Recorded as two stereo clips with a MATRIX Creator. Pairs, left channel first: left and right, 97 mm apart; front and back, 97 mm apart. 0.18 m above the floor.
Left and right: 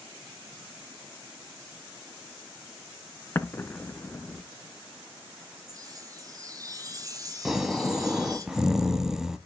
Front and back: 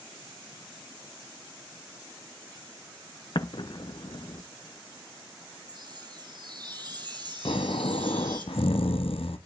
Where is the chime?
140° right, 1.1 m.